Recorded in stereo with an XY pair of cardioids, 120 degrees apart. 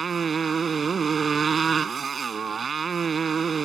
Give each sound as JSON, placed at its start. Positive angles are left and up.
{"t": 0.0, "sound": "a motorcycle", "azimuth_deg": -35}